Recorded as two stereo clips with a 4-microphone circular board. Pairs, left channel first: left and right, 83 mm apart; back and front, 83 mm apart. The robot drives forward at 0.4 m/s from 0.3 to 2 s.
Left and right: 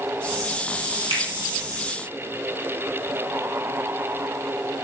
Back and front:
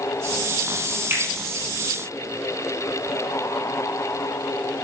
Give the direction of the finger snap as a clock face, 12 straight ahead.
2 o'clock.